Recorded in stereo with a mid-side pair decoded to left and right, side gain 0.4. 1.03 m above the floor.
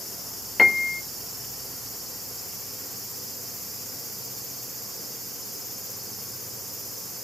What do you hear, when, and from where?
0.6 s a piano: 35° left, 0.5 m